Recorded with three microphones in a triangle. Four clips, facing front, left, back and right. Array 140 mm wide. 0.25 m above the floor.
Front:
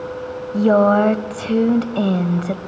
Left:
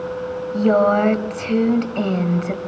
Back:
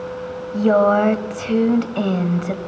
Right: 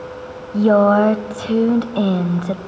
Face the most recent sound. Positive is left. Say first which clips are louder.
# right 3 dB, front 1 dB
turn(degrees=-80)